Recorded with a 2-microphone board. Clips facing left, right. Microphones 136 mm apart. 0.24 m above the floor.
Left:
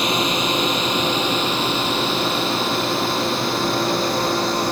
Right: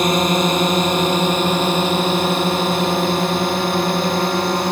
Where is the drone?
45° right (ahead or behind); by 4.7 s 50° right (ahead or behind).